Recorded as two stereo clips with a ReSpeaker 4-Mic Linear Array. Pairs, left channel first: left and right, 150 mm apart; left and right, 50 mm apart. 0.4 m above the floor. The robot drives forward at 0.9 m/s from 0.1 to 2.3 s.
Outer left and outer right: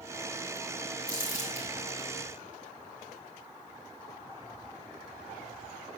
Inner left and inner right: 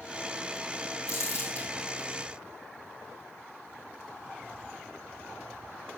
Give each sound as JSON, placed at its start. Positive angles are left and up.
{"t": 1.1, "sound": "crumpling", "side_deg": 55, "distance_m": 4.0}